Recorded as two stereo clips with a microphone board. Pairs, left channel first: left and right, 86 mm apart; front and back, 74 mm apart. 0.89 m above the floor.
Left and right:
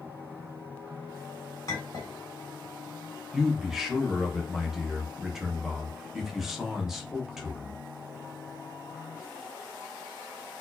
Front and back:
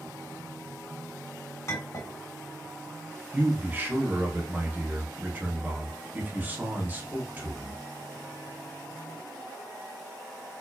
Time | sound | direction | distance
1.7 | a clink | 45° left | 2 m
3.3 | a man speaking | 170° right | 1.0 m